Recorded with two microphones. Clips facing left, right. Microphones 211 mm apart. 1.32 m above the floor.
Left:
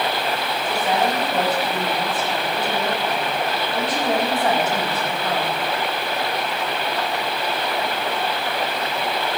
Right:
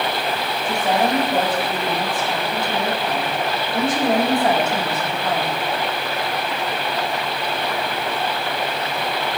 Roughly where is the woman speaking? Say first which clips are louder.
Right 2 dB; right.